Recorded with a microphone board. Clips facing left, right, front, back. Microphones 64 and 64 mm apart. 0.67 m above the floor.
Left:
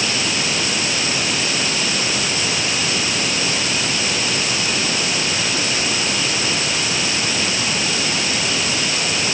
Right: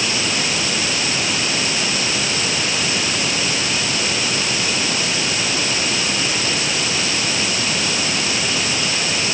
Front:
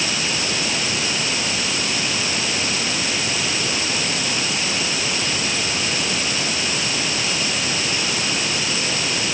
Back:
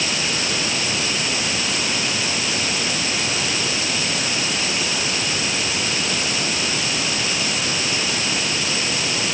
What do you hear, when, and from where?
Only background noise.